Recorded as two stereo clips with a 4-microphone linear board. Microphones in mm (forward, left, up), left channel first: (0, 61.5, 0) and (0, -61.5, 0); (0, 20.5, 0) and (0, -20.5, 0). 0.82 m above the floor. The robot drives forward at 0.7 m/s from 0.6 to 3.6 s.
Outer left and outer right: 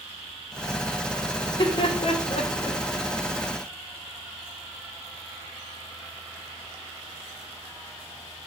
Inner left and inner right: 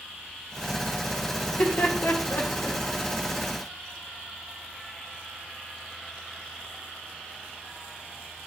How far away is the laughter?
About 0.9 m.